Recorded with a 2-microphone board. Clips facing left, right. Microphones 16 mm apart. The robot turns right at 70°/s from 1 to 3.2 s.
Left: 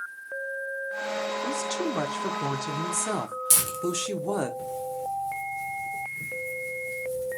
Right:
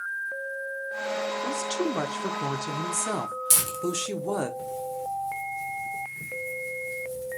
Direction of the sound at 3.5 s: Centre (ahead or behind).